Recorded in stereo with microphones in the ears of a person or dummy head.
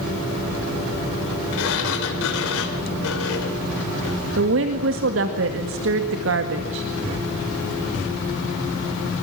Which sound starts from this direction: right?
A woman speaking, at 4.4 s.